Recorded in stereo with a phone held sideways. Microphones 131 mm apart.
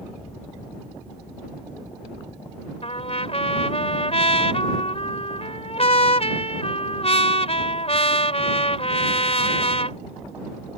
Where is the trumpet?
50° left (ahead or behind).